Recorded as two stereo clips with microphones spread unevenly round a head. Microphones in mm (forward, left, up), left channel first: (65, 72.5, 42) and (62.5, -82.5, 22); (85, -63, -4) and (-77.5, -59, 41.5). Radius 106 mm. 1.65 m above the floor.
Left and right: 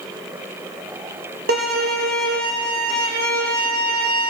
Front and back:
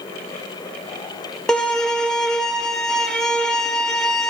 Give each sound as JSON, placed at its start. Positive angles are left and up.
{"t": 1.5, "sound": "a violin", "azimuth_deg": -100, "distance_m": 1.1}